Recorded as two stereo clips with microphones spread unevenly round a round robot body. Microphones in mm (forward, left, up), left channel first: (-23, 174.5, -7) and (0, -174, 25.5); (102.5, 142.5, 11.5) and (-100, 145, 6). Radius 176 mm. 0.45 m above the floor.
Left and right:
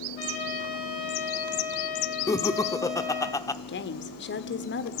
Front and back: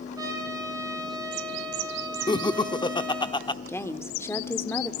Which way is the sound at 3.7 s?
75° left.